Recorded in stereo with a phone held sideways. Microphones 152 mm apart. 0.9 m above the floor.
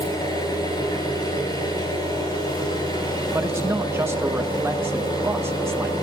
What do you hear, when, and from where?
0.0 s an engine running: 25° left (ahead or behind), 6.5 m
3.3 s a man speaking: 15° right (ahead or behind), 1.1 m